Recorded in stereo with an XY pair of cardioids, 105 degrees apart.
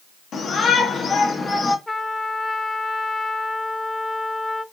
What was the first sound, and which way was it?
A shout, 50° left.